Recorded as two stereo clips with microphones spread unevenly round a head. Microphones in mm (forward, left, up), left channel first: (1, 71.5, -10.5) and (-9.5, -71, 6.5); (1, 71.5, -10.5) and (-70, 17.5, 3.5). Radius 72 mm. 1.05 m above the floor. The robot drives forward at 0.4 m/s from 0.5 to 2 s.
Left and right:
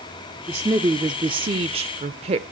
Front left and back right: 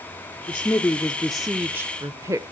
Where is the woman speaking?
20° right, 0.8 m; by 2.4 s 90° right, 0.5 m.